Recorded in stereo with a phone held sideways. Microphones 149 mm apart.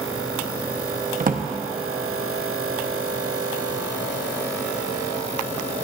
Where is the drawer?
70° right (ahead or behind), 1.1 m.